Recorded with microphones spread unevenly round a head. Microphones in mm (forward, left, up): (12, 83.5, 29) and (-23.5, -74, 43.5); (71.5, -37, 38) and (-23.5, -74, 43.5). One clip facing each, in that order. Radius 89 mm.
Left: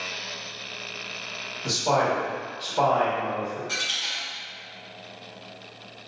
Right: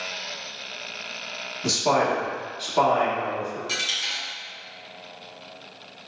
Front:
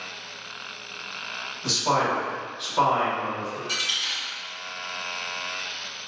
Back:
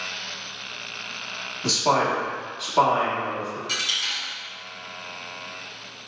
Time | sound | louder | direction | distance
1.6 | a man speaking | right 1 dB, back 2 dB | 110° right | 1.1 m
3.7 | a dropped coin | right 1 dB, back 1 dB | 125° right | 1.6 m